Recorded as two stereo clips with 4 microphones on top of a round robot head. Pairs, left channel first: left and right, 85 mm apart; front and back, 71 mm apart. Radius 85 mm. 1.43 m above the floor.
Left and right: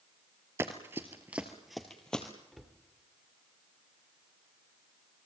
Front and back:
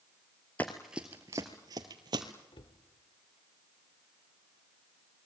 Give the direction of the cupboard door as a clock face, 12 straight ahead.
12 o'clock.